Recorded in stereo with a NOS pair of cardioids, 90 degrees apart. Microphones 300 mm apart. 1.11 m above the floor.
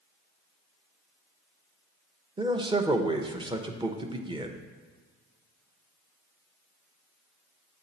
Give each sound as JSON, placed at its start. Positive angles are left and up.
{"t": 2.4, "sound": "a man speaking", "azimuth_deg": -15, "distance_m": 0.8}